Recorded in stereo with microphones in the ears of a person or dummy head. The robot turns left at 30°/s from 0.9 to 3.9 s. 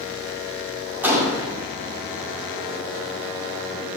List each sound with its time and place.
1.0 s a gunshot: 15° right (ahead or behind), 1.9 m; by 1.5 s 25° right (ahead or behind), 1.9 m